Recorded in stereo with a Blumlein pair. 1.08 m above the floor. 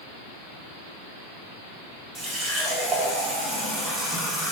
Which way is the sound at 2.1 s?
15° right.